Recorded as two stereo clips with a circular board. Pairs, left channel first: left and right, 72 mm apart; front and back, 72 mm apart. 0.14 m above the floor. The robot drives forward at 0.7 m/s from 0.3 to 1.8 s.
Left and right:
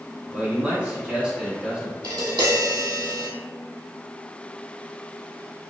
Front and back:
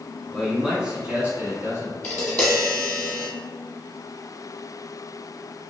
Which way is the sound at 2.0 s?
70° right.